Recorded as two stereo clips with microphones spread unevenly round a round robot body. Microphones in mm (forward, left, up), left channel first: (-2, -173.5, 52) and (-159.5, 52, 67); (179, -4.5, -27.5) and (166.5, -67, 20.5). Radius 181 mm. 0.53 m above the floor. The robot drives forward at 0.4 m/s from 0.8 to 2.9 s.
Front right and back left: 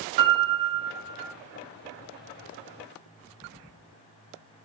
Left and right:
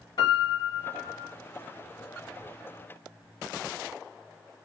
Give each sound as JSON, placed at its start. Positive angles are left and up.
{"t": 0.2, "sound": "a piano", "azimuth_deg": 100, "distance_m": 1.1}